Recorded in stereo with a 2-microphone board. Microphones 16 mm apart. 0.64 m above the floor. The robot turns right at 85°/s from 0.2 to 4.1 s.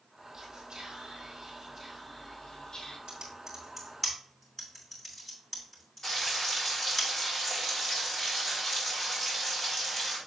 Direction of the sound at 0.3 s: 155° right.